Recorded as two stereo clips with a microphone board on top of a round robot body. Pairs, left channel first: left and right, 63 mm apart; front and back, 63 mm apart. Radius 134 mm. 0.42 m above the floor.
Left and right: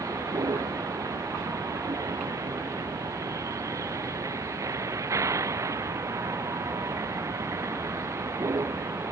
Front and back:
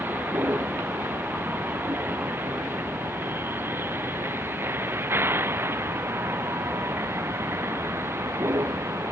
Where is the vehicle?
120° right; by 9.1 s 135° right.